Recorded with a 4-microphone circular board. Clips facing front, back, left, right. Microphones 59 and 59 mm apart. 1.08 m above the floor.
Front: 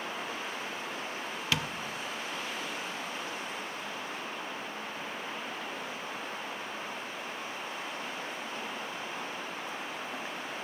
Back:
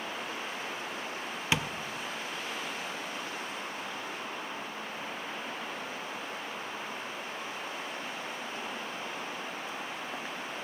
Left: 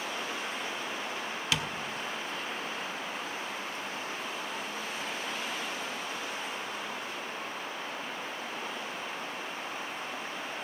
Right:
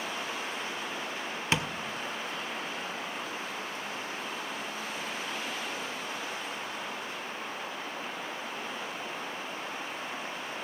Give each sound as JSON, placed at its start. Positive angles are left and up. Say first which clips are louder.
{"t": 1.5, "sound": "tapping", "louder": "back 2 dB, right 3 dB", "azimuth_deg": -130, "distance_m": 0.5}